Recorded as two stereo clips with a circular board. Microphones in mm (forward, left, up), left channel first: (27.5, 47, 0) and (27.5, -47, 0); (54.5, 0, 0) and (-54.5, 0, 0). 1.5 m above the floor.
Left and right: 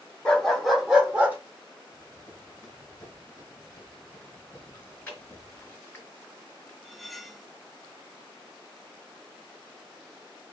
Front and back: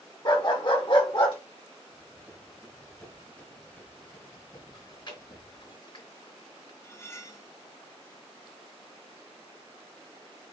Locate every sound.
0.2 s a dog barking: 15° left, 1.4 m; by 1.4 s 20° right, 1.8 m
1.9 s running footsteps: 125° left, 1.6 m; by 5.7 s 30° left, 2.5 m
4.7 s chewing: 25° left, 2.5 m
6.8 s cutlery clinking: 5° left, 0.6 m